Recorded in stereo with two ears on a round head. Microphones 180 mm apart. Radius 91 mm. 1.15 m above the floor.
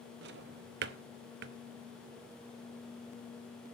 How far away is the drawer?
About 0.7 m.